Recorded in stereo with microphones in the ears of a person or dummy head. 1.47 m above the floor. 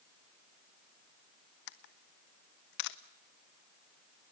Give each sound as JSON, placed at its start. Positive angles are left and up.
{"t": 1.7, "sound": "a camera shutter", "side_deg": 60, "distance_m": 1.0}